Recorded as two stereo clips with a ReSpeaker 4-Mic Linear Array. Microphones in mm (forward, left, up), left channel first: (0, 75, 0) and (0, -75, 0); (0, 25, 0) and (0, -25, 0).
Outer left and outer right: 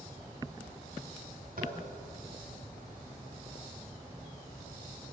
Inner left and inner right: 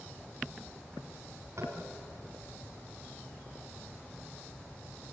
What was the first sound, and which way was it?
Tapping, 70° right (ahead or behind).